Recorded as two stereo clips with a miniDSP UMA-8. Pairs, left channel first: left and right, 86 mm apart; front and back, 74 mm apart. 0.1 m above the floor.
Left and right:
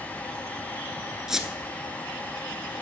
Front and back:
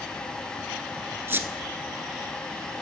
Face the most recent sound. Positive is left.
turn(degrees=-170)